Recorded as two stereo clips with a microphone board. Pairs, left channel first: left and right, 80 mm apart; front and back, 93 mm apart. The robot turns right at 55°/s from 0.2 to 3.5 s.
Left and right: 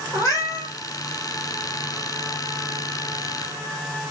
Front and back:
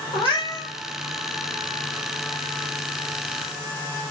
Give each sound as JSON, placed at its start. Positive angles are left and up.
{"t": 0.1, "sound": "a cat meowing", "azimuth_deg": 35, "distance_m": 1.5}